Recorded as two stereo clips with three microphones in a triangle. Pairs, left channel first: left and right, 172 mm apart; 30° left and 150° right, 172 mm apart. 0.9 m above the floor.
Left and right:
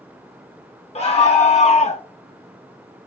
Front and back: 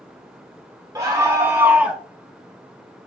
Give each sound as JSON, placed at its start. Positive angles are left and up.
{"t": 0.9, "sound": "a scream", "azimuth_deg": 140, "distance_m": 1.2}